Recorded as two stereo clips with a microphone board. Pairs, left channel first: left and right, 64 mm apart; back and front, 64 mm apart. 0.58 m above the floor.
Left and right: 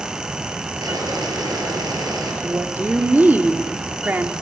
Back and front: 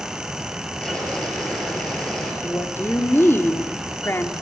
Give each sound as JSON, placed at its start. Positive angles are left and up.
{"t": 0.8, "sound": "boiling", "azimuth_deg": -100, "distance_m": 6.0}
{"t": 2.4, "sound": "a woman speaking", "azimuth_deg": -140, "distance_m": 1.2}